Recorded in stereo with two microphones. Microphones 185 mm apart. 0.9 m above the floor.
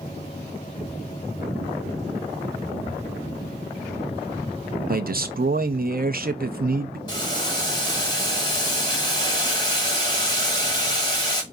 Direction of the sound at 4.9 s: 55° right (ahead or behind).